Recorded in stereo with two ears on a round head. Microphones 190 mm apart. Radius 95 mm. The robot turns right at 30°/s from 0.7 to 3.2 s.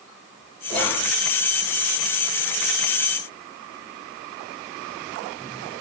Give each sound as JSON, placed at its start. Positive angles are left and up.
{"t": 0.7, "sound": "whispering", "side_deg": 10, "distance_m": 0.9}